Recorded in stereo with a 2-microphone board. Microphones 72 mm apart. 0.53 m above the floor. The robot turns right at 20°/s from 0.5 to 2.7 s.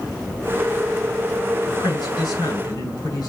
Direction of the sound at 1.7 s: 80° left.